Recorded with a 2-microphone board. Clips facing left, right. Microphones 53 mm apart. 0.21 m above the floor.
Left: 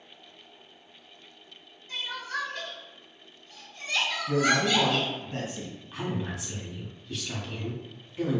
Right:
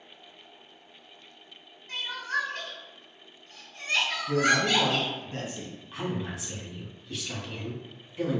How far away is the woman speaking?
About 1.0 m.